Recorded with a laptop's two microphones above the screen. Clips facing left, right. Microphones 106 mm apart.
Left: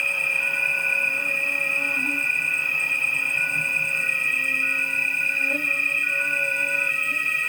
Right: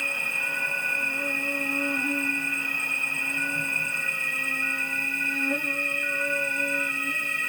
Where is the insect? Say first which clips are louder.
Left 3 dB; 30° right (ahead or behind), 1.9 m.